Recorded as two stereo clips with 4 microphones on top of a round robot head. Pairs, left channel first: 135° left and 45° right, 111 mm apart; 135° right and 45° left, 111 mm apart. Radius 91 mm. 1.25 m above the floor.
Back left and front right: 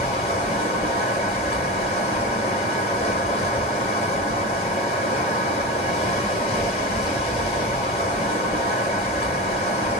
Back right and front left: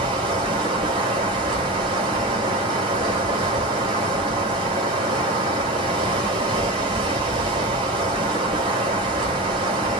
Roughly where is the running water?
Left.